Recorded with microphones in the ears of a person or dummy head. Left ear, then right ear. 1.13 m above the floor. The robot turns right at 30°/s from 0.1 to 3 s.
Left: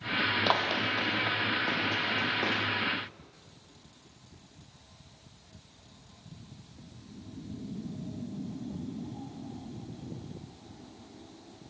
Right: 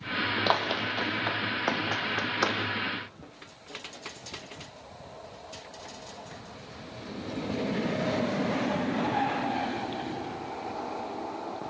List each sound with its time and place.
0.5 s running footsteps: 5° right (ahead or behind), 3 m; by 2.6 s 70° right (ahead or behind), 4 m